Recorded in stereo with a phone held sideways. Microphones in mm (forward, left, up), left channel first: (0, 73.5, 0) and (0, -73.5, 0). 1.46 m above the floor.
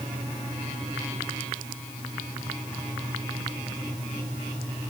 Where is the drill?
I don't hear a drill.